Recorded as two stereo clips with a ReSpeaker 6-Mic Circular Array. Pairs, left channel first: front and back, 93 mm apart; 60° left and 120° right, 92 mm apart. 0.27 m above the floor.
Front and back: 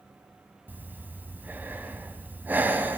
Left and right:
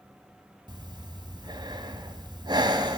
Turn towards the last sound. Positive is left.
turn(degrees=-115)